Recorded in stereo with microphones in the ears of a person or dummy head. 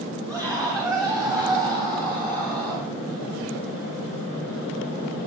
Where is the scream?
20° right (ahead or behind), 7.5 m; by 2.9 s 25° right (ahead or behind), 9 m.